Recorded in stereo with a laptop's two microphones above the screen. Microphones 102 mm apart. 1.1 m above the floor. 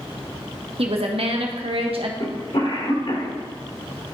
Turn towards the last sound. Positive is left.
turn(degrees=65)  # may be behind; listen again after turning